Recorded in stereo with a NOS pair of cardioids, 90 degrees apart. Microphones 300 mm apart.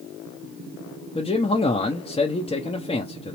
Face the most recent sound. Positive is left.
turn(degrees=20)